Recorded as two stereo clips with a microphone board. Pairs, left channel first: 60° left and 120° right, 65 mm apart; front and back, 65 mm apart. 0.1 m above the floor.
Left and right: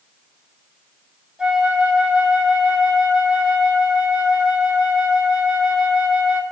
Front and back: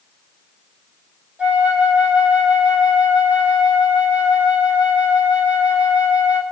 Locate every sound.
1.4 s a flute: 165° right, 0.7 m